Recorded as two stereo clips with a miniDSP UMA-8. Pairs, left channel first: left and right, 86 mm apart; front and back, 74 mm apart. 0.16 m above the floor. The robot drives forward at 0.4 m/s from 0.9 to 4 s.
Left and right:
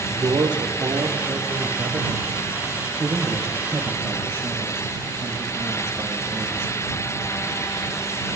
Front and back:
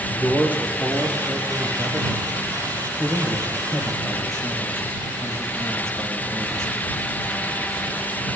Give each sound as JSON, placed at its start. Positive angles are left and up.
{"t": 0.1, "sound": "a man speaking", "azimuth_deg": -110, "distance_m": 4.0}